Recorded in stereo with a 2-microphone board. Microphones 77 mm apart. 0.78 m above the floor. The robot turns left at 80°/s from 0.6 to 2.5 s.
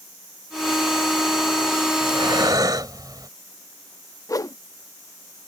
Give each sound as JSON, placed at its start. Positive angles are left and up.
{"t": 2.0, "sound": "breathing", "azimuth_deg": -80}
{"t": 4.3, "sound": "a whoosh", "side_deg": 45}